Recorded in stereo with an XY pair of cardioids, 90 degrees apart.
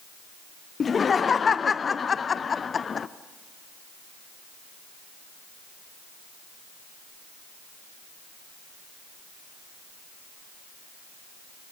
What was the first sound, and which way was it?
Laughter, 45° left.